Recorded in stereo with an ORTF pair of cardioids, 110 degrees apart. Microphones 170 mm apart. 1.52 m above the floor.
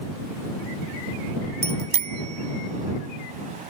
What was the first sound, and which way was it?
A bicycle bell, 40° right.